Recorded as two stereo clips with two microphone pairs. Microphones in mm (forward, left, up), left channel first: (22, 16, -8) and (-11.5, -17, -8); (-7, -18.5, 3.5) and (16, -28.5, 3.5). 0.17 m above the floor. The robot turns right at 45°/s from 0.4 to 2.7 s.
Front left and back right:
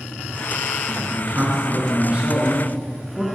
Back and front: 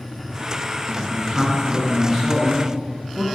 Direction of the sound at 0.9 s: 140° right.